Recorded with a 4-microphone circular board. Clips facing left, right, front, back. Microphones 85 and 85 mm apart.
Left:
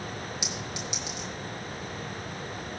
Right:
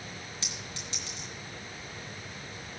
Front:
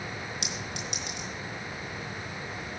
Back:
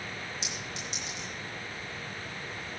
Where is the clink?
15° left, 2.5 m.